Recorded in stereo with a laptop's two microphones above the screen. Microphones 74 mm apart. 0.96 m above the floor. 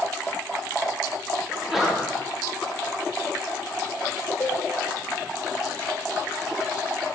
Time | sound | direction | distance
1.5 | a sneeze | 5° right (ahead or behind) | 1.2 m
4.4 | a cowbell | 45° left (ahead or behind) | 0.8 m